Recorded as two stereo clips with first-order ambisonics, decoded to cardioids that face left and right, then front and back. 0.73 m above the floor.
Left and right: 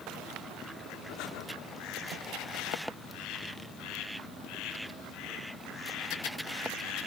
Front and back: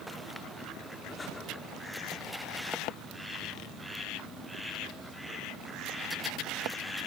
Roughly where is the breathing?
Left.